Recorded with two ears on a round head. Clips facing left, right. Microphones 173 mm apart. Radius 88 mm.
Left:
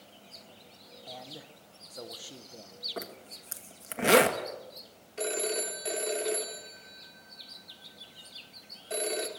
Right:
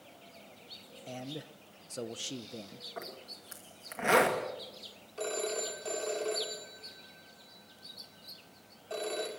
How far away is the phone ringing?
About 2.5 m.